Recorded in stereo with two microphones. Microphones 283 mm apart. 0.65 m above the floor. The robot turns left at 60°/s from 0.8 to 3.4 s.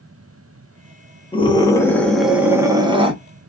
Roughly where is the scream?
Centre.